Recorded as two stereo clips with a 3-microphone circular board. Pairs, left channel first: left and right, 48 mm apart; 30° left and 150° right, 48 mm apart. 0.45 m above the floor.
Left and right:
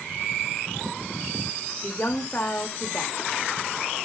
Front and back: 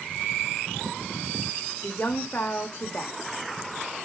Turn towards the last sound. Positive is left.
turn(degrees=60)